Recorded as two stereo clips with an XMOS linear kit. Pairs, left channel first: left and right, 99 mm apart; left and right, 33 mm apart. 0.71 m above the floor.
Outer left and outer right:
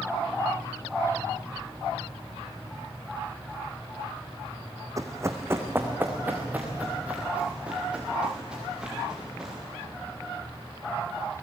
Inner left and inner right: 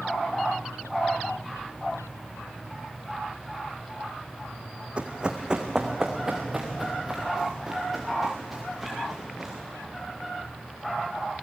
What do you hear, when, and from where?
5.0 s running footsteps: 35° right (ahead or behind), 2 m; by 9.5 s 5° right (ahead or behind), 8 m